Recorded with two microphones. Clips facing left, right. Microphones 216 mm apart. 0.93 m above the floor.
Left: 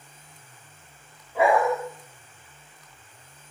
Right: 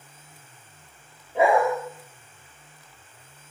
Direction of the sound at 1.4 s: 25° right (ahead or behind).